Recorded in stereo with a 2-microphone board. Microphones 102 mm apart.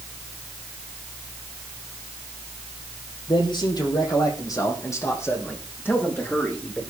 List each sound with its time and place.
3.3 s a man speaking: 50° left (ahead or behind), 5 m; by 6.8 s 15° left (ahead or behind), 8 m